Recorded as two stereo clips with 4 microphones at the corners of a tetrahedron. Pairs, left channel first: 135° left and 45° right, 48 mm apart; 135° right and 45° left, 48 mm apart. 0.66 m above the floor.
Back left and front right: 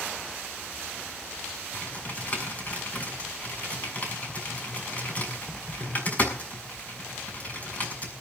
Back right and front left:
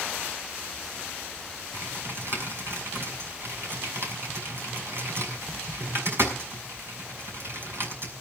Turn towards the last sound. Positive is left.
turn(degrees=75)